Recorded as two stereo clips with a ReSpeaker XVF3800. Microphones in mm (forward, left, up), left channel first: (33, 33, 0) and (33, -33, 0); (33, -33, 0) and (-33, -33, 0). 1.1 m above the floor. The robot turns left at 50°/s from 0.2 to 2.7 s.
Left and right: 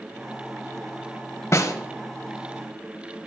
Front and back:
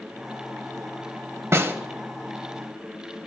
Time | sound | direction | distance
1.5 | a snare drum | 135° left | 0.6 m